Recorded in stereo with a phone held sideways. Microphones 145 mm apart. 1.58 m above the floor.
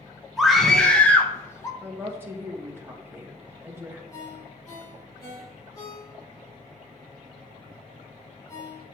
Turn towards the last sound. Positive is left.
turn(degrees=25)  # may be behind; listen again after turning